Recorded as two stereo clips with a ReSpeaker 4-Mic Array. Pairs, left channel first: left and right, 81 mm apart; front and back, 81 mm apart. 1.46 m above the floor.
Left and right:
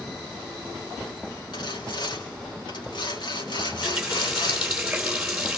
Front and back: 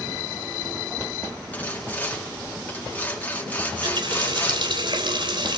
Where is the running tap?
175° right, 3.5 m.